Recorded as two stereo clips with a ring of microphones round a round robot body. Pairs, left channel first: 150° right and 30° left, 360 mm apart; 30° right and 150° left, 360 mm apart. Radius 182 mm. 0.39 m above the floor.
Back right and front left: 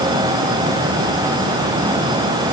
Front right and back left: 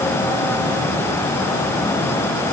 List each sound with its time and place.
Only background noise.